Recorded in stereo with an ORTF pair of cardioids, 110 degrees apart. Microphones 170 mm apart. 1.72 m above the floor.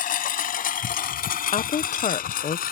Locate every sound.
0.0 s a lawn mower: 55° left
1.5 s a woman speaking: 40° left